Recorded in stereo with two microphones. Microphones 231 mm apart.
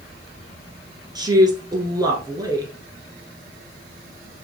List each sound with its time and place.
1.1 s a woman speaking: 15° right (ahead or behind), 1.4 m